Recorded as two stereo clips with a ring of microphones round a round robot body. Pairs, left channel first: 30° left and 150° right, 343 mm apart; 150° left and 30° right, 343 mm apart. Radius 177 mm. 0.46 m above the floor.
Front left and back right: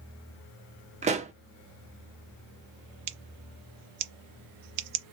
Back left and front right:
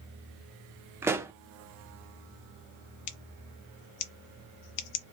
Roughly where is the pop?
Right.